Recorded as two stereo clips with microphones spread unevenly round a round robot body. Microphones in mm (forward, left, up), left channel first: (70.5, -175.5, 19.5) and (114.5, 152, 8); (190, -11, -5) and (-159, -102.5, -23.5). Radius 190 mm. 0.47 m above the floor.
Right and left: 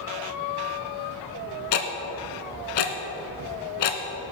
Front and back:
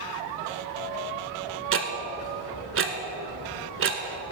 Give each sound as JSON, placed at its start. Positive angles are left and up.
{"t": 1.7, "sound": "ticking", "azimuth_deg": -110, "distance_m": 1.2}